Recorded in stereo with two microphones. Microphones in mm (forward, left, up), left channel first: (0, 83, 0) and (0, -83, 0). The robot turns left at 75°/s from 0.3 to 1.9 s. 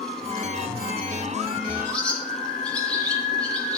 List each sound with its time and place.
1.9 s a bird: 10° left (ahead or behind), 2.5 m; by 3.8 s 5° left (ahead or behind), 2.5 m